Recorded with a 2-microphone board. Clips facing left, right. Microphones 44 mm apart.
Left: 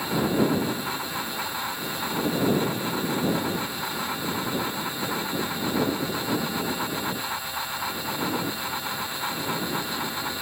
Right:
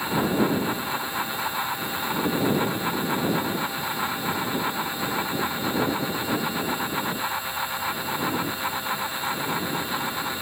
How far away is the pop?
I don't hear a pop.